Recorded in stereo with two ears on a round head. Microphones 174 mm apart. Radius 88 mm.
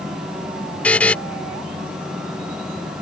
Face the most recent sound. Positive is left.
turn(degrees=5)  # may be behind; listen again after turning